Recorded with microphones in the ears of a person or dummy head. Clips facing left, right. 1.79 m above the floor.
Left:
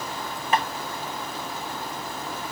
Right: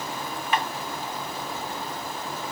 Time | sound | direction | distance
0.5 | tapping | 40° left (ahead or behind) | 0.9 m